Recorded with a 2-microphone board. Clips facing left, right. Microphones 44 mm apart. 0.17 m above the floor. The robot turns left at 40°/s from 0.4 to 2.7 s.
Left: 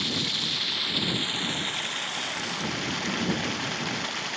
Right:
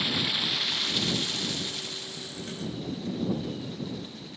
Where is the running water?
170° right; by 4.4 s 100° left.